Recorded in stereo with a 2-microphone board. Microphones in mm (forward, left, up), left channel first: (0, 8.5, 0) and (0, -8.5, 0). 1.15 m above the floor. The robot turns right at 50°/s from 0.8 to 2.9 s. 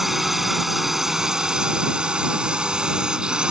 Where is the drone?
20° right (ahead or behind); by 3.5 s 65° right (ahead or behind).